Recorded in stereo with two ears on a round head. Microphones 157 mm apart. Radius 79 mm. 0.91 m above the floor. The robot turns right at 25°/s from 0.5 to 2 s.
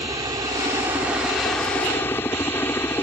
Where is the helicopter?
25° right; by 3.0 s 15° left.